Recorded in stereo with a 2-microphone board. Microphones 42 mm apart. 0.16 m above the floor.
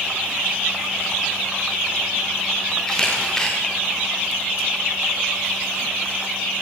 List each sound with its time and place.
2.9 s a camera shutter: 10° left (ahead or behind), 7 m